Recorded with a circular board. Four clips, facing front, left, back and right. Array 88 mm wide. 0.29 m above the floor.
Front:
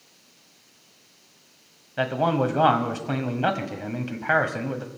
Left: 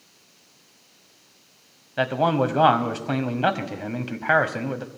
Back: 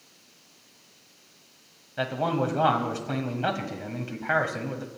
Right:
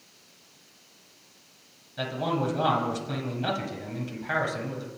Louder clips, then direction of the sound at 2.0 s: Left 7 dB, front 4 dB; 65° left.